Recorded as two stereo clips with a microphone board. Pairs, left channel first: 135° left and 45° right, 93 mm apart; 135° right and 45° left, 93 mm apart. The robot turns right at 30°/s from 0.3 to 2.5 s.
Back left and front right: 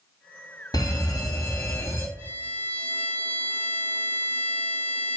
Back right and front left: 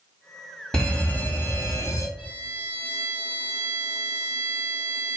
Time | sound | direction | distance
0.7 | a fire alarm | 145° left | 3 m
2.2 | a violin | 165° right | 3 m